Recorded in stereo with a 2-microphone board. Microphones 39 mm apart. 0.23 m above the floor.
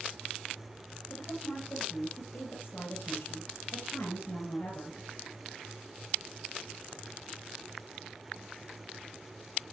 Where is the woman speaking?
65° left (ahead or behind), 4.5 m.